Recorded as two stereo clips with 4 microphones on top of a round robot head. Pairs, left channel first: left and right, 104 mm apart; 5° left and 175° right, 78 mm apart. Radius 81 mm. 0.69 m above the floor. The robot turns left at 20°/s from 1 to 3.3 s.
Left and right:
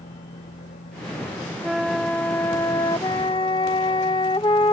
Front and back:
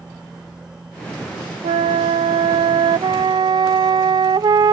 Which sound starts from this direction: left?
A vehicle, at 0.0 s.